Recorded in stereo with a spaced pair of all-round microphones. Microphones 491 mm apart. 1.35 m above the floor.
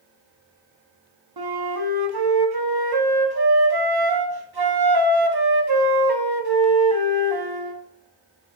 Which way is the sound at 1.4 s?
50° right (ahead or behind).